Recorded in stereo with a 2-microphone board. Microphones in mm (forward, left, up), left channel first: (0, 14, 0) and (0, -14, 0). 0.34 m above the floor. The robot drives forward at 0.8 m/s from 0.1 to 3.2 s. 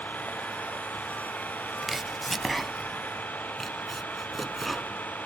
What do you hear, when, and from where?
0.0 s an engine running: 75° left (ahead or behind); by 5.3 s 80° left
1.8 s chopping: 5° right (ahead or behind); by 5.0 s centre (ahead or behind)